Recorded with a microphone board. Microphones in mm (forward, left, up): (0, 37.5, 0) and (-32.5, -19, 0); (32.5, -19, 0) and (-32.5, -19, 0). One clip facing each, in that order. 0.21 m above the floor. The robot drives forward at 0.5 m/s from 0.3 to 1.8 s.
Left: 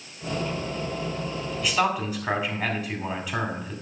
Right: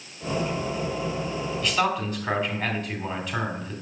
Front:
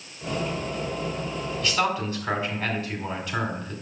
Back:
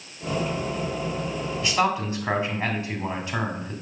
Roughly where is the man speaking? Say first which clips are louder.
Left 1 dB, back 2 dB; behind left.